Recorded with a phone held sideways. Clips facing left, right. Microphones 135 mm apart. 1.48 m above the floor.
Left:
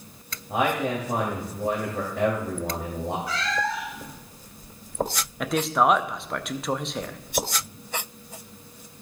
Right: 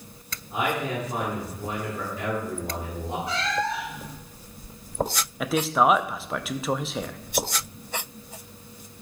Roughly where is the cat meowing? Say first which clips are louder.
Right 1 dB; right.